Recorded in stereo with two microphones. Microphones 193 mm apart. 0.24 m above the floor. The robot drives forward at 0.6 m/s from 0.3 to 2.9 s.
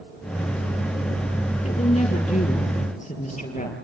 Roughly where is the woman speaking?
Left.